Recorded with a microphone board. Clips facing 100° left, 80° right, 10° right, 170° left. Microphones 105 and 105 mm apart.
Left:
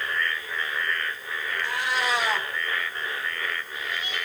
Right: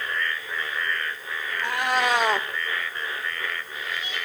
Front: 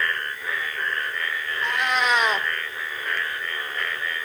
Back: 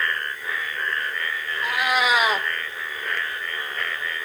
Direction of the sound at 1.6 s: 105° right.